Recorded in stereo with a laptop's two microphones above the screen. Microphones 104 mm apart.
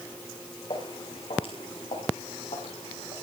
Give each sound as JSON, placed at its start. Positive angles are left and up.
{"t": 0.7, "sound": "footsteps", "side_deg": 55, "distance_m": 8.5}